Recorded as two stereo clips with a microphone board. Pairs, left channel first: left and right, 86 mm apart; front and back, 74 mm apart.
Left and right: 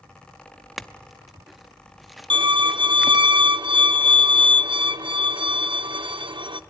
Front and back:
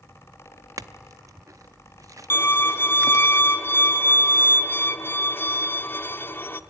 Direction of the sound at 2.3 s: 65° right.